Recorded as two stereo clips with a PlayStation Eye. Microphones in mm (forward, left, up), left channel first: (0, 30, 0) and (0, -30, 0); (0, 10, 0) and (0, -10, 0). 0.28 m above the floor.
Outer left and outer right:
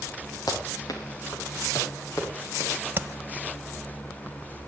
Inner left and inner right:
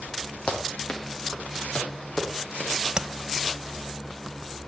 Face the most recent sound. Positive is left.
turn(degrees=-40)  # may be behind; listen again after turning